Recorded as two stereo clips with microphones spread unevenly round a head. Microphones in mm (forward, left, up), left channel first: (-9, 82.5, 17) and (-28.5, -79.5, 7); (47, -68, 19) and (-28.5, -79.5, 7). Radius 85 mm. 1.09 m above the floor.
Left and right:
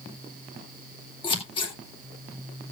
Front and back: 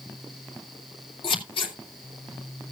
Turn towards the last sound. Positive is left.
turn(degrees=20)